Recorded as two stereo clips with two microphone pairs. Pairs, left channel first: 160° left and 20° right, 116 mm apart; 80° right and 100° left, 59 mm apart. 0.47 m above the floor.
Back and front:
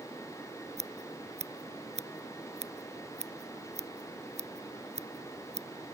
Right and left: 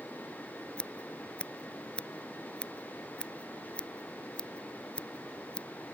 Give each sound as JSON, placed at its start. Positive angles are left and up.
{"t": 0.8, "sound": "scissors", "azimuth_deg": -5}